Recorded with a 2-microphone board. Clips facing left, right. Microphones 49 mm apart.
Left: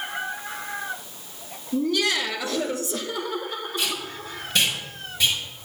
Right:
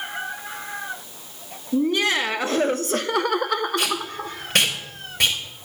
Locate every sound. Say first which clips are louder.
1.7 s laughter: right 3 dB; 30° right (ahead or behind), 2 m; by 4.4 s 50° right (ahead or behind), 1.2 m
3.8 s tape being pulled: right 4 dB; 60° right (ahead or behind), 4 m